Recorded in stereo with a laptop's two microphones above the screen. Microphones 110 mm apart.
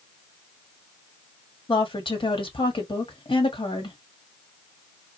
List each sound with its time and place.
1.7 s a woman speaking: 50° left (ahead or behind), 1.6 m